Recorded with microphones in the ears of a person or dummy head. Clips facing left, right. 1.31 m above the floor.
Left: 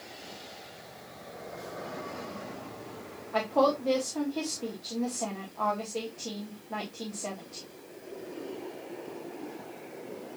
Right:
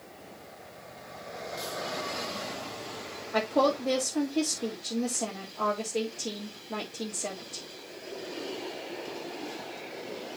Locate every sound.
3.3 s a woman speaking: 20° right (ahead or behind), 2 m